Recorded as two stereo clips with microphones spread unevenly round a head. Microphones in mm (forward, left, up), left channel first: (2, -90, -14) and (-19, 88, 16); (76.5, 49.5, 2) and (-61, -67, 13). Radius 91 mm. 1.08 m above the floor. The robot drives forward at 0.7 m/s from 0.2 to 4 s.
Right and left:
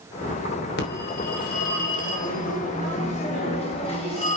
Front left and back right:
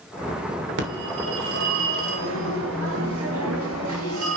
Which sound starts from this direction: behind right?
A phone ringing, at 0.8 s.